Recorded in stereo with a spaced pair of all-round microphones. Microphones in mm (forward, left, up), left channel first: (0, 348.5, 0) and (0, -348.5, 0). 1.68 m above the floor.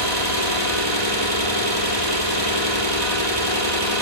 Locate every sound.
0.0 s an engine running: 65° left (ahead or behind), 7.5 m